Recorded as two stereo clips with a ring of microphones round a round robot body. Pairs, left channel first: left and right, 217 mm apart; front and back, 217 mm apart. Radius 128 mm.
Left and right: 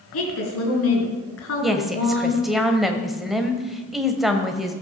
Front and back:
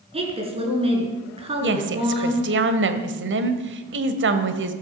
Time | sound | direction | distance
0.1 | a woman speaking | 115° left | 5 m
1.6 | a woman speaking | straight behind | 1.6 m